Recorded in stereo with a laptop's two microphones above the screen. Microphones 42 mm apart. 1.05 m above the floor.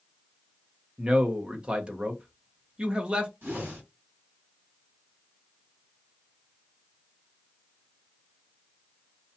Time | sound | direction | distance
1.0 | a man speaking | 25° right (ahead or behind) | 0.6 m
3.4 | a whoosh | 55° right (ahead or behind) | 2.0 m